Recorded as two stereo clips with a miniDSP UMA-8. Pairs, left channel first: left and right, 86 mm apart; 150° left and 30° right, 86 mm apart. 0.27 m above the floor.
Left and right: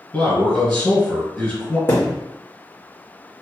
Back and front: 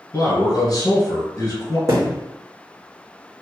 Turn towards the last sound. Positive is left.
turn(degrees=25)